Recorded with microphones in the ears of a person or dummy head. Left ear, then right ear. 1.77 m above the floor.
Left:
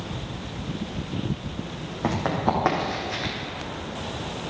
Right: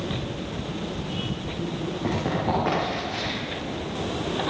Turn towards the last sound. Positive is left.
turn(degrees=35)  # may be behind; listen again after turning